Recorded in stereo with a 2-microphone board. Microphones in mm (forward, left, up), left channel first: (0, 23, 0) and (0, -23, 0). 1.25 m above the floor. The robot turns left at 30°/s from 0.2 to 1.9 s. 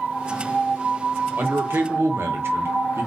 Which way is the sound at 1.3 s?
45° right (ahead or behind).